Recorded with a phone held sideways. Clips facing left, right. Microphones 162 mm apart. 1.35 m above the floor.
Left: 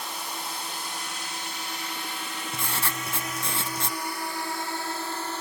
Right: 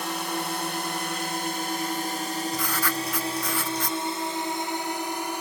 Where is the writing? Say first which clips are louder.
Right 5 dB; 25° left (ahead or behind).